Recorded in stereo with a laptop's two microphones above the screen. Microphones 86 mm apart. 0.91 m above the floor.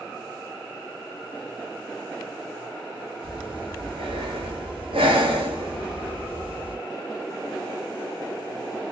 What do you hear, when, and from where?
3.2 s breathing: 80° right, 0.6 m